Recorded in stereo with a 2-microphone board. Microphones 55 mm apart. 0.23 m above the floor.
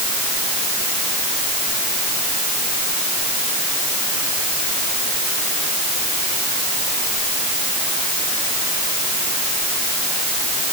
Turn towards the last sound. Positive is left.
No sound to turn to.